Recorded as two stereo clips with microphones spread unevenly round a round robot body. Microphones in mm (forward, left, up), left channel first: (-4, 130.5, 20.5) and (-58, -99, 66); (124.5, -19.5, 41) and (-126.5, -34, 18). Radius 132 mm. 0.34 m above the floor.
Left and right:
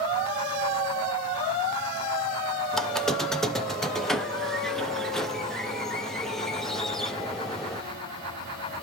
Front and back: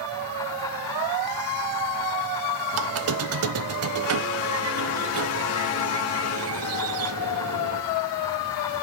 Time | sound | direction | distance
2.7 | a squeak | 160° left | 0.9 m